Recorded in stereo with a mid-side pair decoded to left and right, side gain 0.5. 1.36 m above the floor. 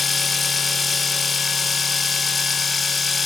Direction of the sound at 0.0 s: 30° left.